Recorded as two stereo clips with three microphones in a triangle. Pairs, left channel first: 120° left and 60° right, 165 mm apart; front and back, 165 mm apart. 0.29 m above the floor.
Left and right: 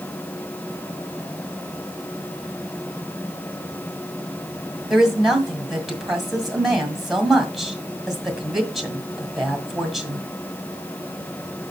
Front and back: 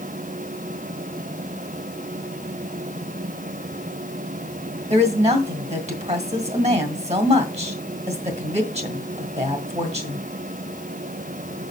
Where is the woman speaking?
150° right, 1.8 m.